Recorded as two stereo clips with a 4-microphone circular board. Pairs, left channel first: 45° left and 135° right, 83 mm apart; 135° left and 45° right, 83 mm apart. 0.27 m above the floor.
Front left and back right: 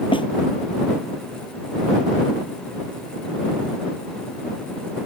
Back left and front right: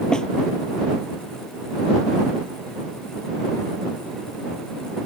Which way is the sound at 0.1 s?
55° left.